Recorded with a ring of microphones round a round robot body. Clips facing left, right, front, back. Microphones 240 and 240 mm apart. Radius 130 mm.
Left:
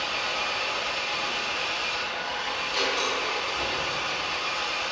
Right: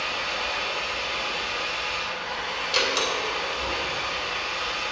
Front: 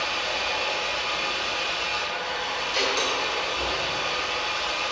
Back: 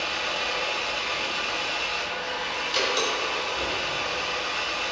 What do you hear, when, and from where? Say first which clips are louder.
0.0 s an engine running: right 1 dB, front 1 dB; 95° left, 1.9 m
2.7 s a door slam: right 2 dB, even; 115° right, 2.5 m